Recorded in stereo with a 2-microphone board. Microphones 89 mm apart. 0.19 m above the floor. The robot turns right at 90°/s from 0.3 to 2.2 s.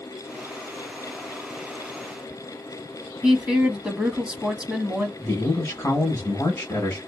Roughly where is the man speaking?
Left.